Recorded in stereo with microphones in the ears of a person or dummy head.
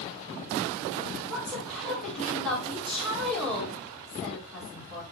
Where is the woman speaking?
Centre (ahead or behind), 3.5 m.